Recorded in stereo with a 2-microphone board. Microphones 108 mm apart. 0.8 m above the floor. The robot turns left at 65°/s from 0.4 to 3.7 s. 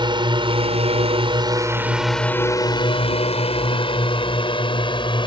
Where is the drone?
50° right (ahead or behind); by 5.3 s 50° left (ahead or behind).